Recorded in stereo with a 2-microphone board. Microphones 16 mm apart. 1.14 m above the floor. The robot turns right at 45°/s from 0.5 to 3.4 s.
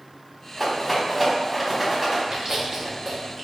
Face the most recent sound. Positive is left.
turn(degrees=-15)  # may be behind; listen again after turning